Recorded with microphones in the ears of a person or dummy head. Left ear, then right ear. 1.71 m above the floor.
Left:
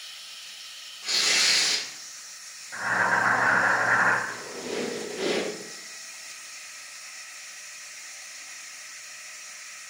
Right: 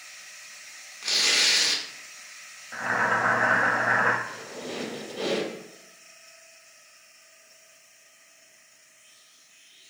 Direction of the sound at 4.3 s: 20° right (ahead or behind).